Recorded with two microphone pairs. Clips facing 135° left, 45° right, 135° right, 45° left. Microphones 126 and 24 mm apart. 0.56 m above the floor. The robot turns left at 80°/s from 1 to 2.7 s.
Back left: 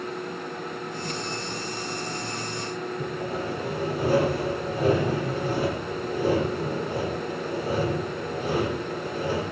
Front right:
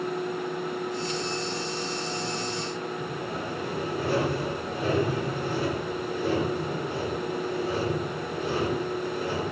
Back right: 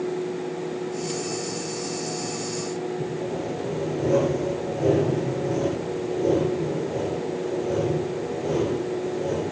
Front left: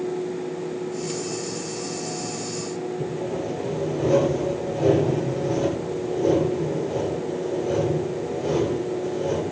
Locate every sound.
3.0 s sawing: 90° left, 6 m